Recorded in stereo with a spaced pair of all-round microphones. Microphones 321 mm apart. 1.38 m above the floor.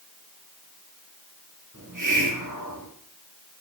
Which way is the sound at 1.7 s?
70° right (ahead or behind).